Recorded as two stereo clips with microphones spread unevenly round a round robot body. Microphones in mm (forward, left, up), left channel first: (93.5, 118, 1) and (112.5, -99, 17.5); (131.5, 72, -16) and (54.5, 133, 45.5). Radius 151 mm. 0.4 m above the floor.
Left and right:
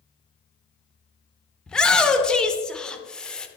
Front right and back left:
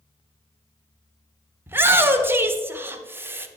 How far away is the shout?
About 0.8 m.